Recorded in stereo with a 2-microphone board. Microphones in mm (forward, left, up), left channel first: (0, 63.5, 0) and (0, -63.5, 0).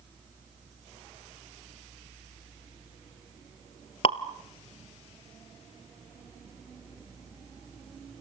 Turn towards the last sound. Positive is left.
turn(degrees=50)  # may be behind; listen again after turning